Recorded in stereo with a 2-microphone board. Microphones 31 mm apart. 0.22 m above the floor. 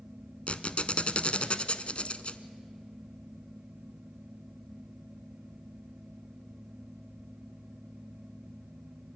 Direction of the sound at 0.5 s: 45° left (ahead or behind).